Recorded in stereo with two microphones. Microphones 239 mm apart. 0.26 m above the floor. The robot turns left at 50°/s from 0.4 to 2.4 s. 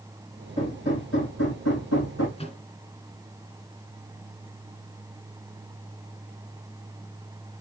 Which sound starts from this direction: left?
A microwave, at 2.4 s.